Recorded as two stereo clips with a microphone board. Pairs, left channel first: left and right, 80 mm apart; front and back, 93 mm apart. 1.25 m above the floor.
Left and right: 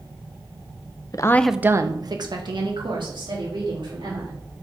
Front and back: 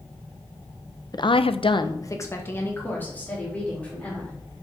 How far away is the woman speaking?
About 0.7 m.